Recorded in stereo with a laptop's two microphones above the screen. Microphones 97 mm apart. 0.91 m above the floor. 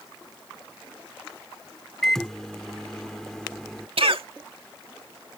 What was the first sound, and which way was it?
A microwave, 5° left (ahead or behind).